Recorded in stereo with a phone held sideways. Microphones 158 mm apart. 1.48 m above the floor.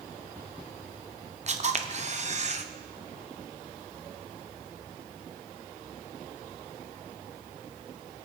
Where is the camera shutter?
45° right (ahead or behind), 0.9 m.